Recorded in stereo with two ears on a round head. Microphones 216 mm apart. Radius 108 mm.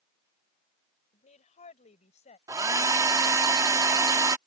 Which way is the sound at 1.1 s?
30° left (ahead or behind).